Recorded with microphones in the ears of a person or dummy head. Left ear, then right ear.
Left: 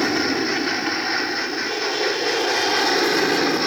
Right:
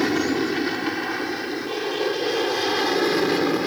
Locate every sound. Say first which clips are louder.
0.0 s an aircraft: left 2 dB; 20° left (ahead or behind); by 3.7 s 25° left (ahead or behind)